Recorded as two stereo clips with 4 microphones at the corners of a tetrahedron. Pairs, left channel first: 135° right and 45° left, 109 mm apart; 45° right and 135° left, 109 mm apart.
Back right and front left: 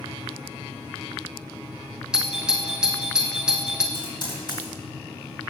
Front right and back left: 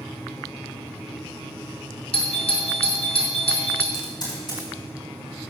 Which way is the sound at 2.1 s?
35° right.